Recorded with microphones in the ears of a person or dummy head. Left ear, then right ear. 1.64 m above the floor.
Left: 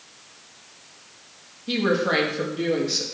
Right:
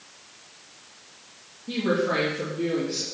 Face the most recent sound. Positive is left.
turn(degrees=55)  # may be behind; listen again after turning